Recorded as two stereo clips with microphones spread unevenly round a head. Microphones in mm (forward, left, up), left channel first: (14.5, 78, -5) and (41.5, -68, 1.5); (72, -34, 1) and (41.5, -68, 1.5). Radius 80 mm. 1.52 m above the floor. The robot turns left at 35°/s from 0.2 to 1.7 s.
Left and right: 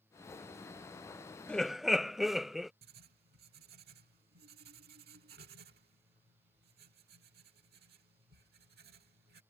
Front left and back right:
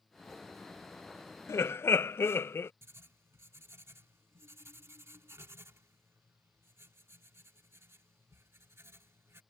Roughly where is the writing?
Right.